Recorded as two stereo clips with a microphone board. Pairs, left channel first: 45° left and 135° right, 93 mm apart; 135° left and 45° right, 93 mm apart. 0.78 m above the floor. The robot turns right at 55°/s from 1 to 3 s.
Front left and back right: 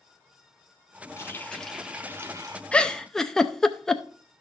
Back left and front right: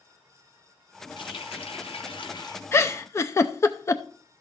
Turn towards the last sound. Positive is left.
turn(degrees=125)